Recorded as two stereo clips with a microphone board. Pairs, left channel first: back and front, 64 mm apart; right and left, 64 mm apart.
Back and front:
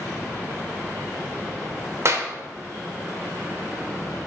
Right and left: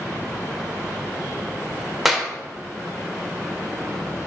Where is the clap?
5° left, 0.7 m.